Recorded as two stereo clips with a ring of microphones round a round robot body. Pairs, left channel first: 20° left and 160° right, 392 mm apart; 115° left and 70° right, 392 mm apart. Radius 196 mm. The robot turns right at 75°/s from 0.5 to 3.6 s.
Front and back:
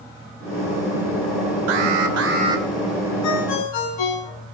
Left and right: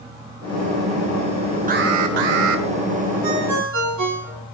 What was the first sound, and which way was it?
An alarm, 140° right.